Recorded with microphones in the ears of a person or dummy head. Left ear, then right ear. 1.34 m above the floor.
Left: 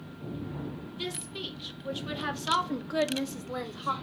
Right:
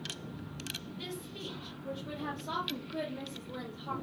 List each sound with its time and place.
0.9 s a woman speaking: 30° left (ahead or behind), 1.6 m; by 3.9 s 50° left (ahead or behind), 0.8 m